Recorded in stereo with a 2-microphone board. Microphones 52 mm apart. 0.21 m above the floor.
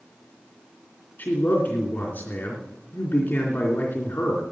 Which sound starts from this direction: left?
A man speaking, at 1.2 s.